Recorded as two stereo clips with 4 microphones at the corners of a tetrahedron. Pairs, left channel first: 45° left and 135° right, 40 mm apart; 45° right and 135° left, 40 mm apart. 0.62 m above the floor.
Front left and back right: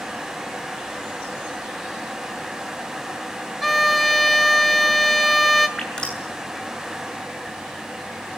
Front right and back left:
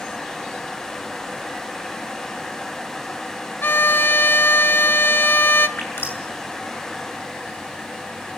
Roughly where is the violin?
Ahead right.